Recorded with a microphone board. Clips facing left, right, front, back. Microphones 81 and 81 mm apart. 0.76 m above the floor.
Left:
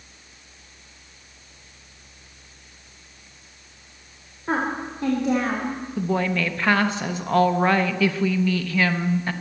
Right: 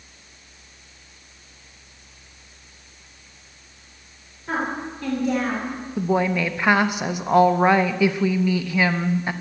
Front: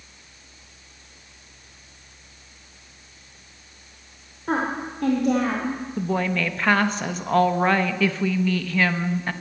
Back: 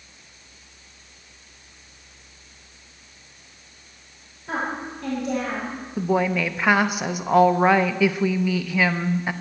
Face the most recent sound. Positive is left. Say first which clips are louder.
# right 3 dB, back 4 dB
turn(degrees=-125)